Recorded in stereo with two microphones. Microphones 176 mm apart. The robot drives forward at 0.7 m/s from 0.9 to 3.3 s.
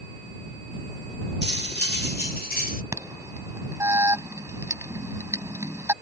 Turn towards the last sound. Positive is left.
turn(degrees=-15)  # may be behind; listen again after turning